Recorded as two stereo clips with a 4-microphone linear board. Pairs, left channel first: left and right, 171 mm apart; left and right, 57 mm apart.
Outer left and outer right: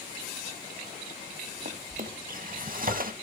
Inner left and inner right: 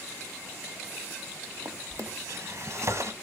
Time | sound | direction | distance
1.6 | a drawer | 55° right (ahead or behind) | 0.6 m